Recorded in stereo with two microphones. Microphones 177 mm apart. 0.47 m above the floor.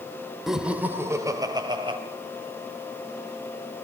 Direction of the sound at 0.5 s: Centre (ahead or behind).